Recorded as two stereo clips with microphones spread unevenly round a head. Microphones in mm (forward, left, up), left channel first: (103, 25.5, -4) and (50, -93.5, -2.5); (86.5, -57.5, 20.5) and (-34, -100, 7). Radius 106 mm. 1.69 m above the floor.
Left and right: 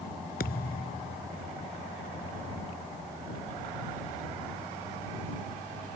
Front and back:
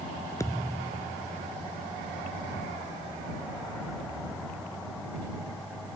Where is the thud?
95° left.